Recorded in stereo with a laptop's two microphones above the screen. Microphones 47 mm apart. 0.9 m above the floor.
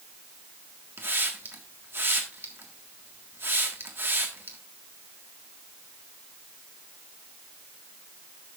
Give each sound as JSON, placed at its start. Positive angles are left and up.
{"t": 1.0, "sound": "a hiss", "side_deg": -55, "distance_m": 1.5}